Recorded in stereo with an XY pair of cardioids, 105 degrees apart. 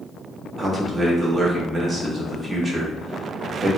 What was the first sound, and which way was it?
A man speaking, 30° right.